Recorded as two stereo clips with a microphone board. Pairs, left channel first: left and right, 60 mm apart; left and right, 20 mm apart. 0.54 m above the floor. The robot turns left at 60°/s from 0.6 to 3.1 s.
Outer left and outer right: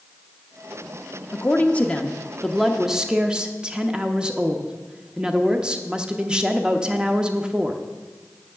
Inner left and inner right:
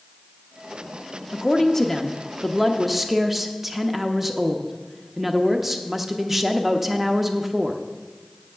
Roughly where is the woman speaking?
Left.